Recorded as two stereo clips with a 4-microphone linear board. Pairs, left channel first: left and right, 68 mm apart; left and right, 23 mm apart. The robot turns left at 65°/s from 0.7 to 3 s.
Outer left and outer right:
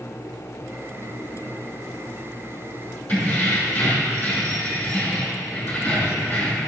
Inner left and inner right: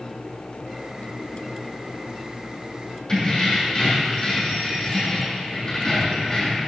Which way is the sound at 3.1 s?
25° left (ahead or behind).